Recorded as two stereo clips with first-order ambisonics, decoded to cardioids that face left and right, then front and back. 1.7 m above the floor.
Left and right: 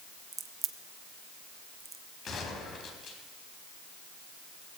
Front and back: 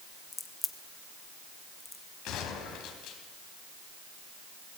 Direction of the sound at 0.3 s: 70° right.